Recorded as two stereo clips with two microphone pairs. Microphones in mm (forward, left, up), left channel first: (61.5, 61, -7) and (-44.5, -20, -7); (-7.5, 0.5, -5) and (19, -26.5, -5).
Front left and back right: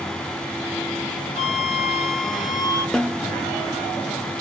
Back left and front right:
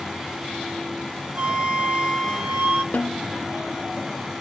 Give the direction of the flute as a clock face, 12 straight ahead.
12 o'clock.